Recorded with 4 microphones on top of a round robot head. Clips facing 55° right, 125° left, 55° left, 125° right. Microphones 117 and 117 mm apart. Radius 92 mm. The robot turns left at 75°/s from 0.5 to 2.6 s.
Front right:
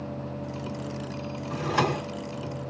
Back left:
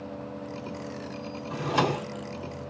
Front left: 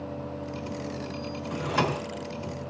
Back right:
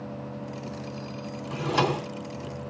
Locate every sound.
1.5 s a drawer: 155° right, 0.5 m; by 2.1 s 160° left, 0.5 m